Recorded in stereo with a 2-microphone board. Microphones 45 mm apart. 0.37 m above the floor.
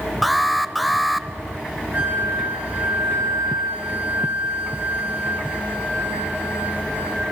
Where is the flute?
45° right (ahead or behind), 3.5 m.